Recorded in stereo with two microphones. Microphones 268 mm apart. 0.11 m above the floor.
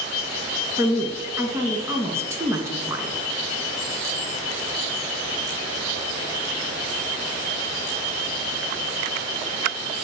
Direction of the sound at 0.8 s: 10° right (ahead or behind).